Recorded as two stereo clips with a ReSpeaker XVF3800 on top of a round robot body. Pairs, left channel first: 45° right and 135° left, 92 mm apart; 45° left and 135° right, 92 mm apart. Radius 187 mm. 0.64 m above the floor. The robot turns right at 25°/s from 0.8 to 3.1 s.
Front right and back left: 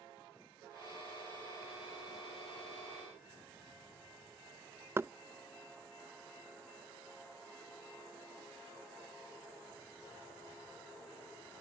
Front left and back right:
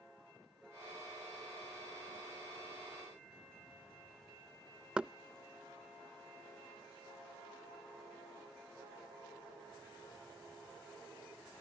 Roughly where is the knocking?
Behind left.